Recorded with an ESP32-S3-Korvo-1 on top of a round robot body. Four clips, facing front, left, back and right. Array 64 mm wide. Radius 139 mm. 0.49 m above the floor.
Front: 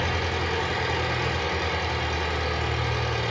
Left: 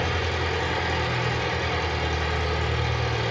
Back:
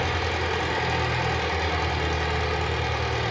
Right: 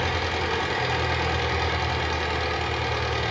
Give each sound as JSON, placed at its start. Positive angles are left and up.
{"t": 0.0, "sound": "an engine running", "azimuth_deg": -100, "distance_m": 0.7}